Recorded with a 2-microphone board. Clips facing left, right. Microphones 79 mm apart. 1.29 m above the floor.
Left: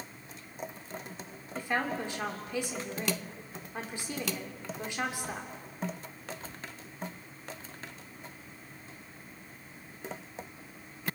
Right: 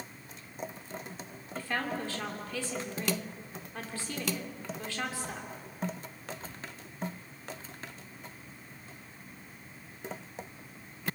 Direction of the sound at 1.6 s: 20° left (ahead or behind).